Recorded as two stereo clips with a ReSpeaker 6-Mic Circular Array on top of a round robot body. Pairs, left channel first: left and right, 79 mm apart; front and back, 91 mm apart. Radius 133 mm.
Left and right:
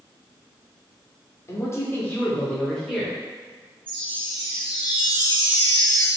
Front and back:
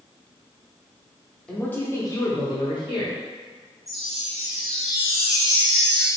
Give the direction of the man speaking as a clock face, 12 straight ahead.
9 o'clock.